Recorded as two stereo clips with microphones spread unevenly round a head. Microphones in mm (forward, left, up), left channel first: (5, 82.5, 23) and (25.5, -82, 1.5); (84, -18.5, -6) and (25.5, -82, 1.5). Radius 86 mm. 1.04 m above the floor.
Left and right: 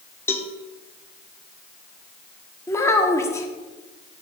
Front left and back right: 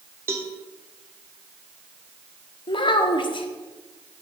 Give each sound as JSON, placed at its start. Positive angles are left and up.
{"t": 0.3, "sound": "a cowbell", "azimuth_deg": 165, "distance_m": 0.7}
{"t": 2.7, "sound": "a child speaking", "azimuth_deg": 25, "distance_m": 1.3}